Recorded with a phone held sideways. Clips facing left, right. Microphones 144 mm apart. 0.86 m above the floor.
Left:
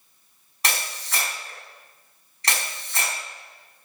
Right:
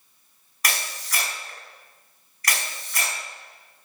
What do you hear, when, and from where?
0.6 s a camera shutter: 25° left (ahead or behind), 4.5 m